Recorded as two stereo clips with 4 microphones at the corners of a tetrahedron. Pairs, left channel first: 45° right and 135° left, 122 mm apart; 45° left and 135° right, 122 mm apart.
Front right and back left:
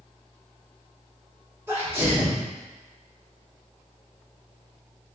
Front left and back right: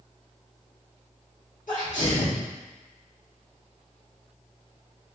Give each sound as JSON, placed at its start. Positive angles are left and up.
{"t": 1.7, "sound": "a sneeze", "azimuth_deg": 65, "distance_m": 1.9}